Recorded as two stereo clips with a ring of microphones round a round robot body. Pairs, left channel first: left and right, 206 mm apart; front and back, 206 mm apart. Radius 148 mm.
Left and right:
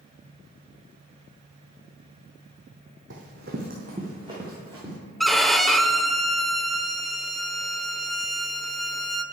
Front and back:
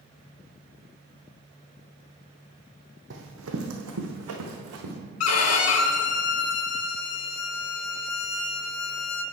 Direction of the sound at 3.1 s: 135° right.